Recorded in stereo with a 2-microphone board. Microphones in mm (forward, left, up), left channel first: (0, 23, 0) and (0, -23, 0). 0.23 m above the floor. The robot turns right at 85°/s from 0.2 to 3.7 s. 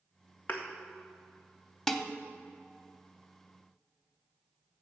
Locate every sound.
0.5 s a thud: 40° left (ahead or behind), 1.5 m; by 0.7 s 30° left (ahead or behind), 1.5 m
1.9 s dishes clattering: 10° left (ahead or behind), 0.7 m; by 2.1 s centre (ahead or behind), 0.7 m